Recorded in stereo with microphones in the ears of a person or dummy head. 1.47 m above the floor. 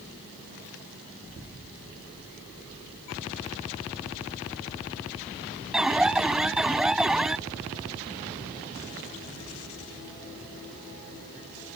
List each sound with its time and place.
5.7 s an alarm: 5° right (ahead or behind)